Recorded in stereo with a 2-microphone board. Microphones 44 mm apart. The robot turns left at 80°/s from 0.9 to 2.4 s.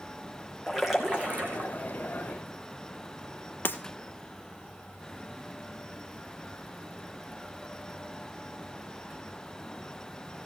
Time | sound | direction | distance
0.7 | a splash | 5° right | 2.5 m
3.6 | breaking glass | 50° left (ahead or behind) | 1.4 m